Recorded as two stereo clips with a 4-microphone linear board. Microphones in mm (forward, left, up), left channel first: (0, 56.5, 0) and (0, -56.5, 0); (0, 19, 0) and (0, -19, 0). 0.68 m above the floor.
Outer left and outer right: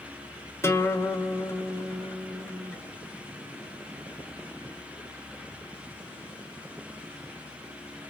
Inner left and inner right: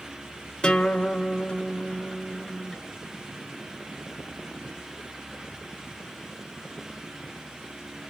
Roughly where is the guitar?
Left.